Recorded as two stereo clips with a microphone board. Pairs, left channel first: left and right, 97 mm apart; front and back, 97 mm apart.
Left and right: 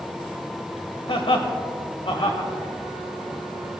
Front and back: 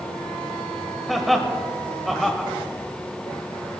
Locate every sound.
1.1 s laughter: 90° left, 1.8 m